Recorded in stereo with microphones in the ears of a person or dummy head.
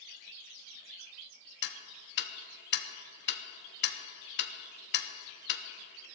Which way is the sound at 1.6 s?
55° left (ahead or behind).